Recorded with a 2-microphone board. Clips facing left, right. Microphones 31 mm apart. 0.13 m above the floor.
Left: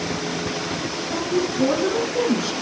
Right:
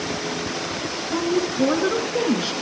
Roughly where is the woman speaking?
Right.